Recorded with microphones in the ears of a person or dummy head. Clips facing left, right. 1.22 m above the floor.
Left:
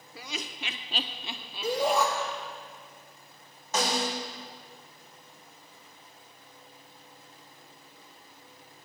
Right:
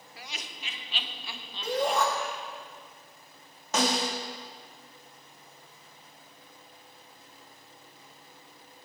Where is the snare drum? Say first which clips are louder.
Right 1 dB; 65° right (ahead or behind), 2.5 m.